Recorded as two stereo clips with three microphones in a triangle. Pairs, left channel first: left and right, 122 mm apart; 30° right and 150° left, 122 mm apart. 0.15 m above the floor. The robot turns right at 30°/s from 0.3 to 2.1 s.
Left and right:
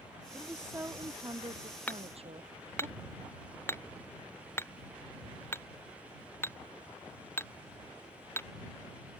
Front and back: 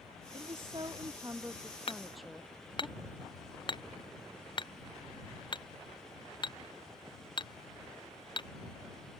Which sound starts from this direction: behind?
A woman speaking, at 0.3 s.